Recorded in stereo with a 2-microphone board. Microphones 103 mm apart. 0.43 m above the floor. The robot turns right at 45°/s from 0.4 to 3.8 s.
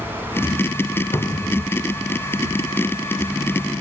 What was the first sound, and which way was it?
A cupboard door, 45° left (ahead or behind).